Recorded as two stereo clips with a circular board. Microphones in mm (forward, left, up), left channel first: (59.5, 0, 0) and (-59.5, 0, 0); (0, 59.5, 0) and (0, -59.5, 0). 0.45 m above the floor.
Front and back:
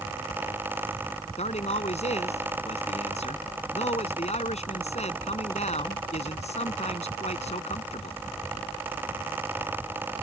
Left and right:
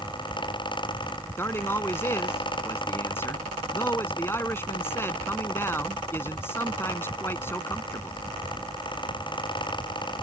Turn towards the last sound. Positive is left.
turn(degrees=20)